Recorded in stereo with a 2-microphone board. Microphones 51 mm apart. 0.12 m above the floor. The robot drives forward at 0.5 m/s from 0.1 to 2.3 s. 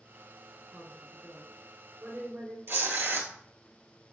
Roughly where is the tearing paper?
Right.